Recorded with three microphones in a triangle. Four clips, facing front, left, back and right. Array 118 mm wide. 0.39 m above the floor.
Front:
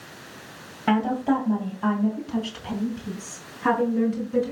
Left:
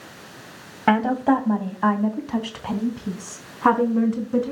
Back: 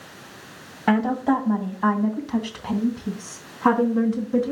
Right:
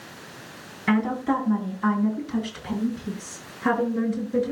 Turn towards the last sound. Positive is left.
turn(degrees=115)